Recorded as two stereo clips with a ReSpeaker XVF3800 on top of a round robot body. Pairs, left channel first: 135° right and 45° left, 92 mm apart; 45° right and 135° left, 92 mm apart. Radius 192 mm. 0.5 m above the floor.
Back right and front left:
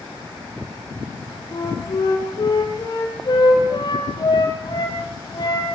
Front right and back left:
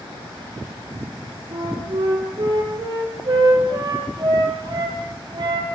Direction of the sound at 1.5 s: Straight behind.